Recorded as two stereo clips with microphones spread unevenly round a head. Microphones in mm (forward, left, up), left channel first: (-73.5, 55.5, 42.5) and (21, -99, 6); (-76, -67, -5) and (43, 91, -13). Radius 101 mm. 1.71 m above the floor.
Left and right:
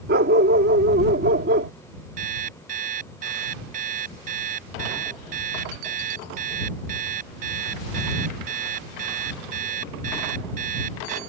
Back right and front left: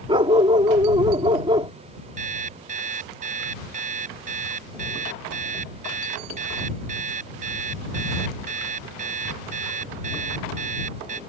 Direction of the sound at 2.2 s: 5° right.